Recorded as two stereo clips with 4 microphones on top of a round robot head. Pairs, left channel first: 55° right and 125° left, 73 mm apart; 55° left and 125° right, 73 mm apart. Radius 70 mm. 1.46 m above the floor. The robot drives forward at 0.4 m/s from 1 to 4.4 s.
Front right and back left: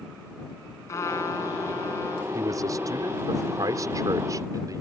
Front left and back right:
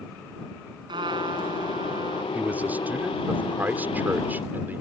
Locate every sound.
0.9 s a trumpet: 105° right; by 2.2 s 110° right
2.3 s a man speaking: 165° left; by 4.8 s 170° left